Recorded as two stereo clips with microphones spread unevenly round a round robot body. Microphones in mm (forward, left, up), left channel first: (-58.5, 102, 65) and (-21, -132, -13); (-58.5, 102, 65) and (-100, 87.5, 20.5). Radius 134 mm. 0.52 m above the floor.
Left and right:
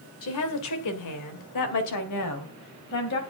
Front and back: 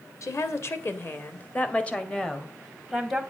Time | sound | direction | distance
0.2 | a woman speaking | 60° left | 2 m